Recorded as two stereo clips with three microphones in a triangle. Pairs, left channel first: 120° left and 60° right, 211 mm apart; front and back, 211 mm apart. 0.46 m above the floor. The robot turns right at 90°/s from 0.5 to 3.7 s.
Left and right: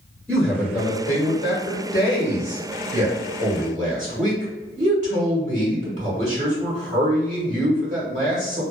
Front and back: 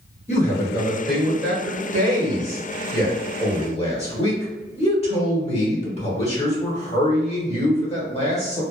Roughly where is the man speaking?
Ahead left.